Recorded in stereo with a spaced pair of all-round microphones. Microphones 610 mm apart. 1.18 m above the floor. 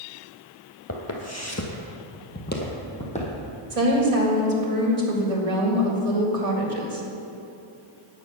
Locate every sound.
0.9 s footsteps: 25° left (ahead or behind), 1.4 m; by 3.4 s 10° left (ahead or behind), 2.5 m
3.7 s a woman speaking: 75° right (ahead or behind), 2 m